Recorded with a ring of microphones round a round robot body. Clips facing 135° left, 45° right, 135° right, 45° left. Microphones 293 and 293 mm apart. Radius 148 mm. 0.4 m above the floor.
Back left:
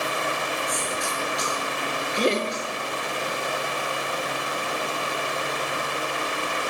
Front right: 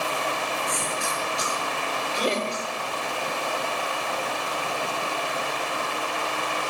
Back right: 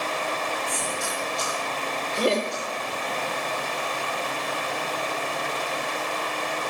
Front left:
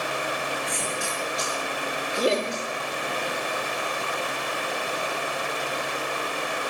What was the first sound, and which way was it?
A cough, 10° left.